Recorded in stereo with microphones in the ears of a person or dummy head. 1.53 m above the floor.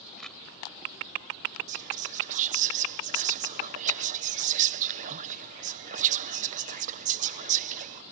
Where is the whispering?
45° right (ahead or behind).